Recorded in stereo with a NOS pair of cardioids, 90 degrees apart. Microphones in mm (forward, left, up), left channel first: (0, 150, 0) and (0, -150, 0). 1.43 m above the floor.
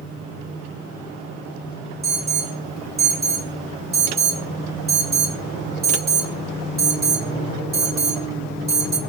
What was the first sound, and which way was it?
An alarm, 35° right.